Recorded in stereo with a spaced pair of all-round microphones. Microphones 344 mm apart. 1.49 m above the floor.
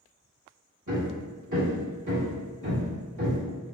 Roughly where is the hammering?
Right.